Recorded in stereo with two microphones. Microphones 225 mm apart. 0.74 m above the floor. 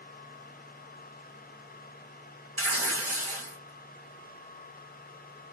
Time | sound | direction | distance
2.6 | tearing paper | 80° right | 2.0 m